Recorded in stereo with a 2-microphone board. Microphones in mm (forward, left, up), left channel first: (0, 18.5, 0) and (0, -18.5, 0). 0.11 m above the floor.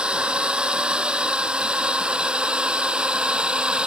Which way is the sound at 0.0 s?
25° right (ahead or behind).